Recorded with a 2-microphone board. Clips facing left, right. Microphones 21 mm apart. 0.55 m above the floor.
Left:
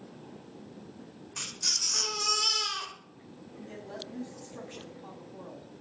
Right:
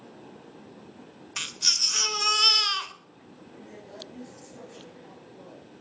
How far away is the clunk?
I don't hear a clunk.